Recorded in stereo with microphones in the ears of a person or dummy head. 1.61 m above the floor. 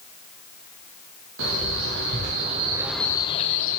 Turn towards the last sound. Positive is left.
turn(degrees=50)  # may be behind; listen again after turning